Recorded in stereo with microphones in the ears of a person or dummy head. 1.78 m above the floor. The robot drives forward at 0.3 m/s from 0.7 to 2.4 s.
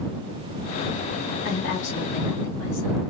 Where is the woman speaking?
70° left (ahead or behind), 1.9 m; by 3.0 s 65° left (ahead or behind), 2.0 m.